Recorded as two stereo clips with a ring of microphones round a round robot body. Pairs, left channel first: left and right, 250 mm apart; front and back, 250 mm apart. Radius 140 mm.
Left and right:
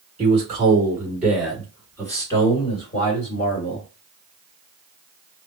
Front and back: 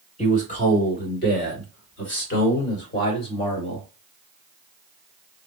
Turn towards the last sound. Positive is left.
turn(degrees=35)